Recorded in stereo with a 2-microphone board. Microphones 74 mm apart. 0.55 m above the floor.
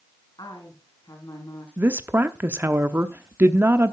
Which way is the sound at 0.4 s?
60° left (ahead or behind).